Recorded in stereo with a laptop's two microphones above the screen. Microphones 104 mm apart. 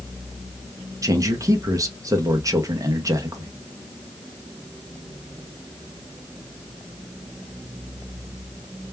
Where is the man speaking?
30° right (ahead or behind), 0.6 m.